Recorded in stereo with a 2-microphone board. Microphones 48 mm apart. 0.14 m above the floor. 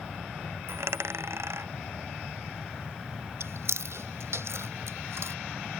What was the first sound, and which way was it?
A dropped coin, 60° right (ahead or behind).